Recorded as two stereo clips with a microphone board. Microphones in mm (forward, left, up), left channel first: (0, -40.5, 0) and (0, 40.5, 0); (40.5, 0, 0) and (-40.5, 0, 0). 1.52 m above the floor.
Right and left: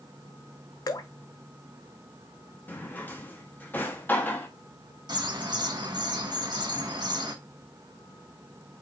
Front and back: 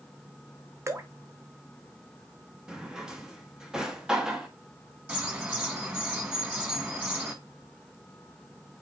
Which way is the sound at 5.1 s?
105° left.